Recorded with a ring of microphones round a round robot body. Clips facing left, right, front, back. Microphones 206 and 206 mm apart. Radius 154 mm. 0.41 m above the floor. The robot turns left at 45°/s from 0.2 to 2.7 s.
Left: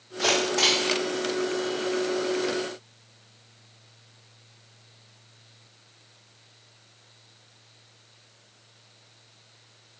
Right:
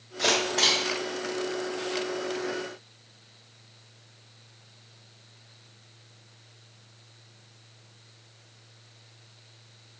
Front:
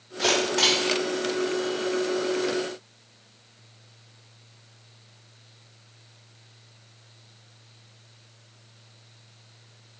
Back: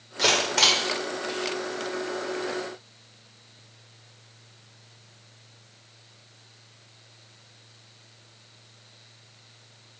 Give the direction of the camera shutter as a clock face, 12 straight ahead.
6 o'clock.